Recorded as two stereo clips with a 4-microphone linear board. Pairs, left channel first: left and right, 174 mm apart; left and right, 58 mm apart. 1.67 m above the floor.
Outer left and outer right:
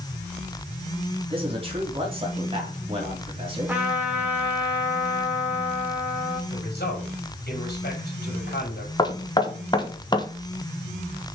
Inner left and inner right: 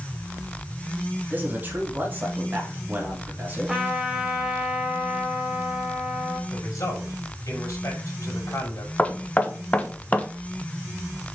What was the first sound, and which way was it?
A man speaking, 30° right (ahead or behind).